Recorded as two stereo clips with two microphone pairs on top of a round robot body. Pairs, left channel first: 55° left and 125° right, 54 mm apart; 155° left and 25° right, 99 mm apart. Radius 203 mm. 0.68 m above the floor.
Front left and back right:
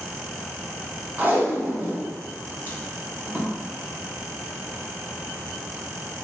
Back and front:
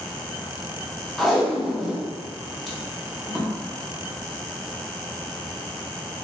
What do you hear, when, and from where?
1.2 s tape being pulled: 115° right, 1.2 m